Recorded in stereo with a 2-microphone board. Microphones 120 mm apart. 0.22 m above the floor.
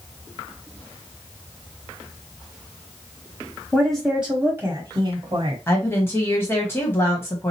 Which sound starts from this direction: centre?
A woman speaking, at 3.7 s.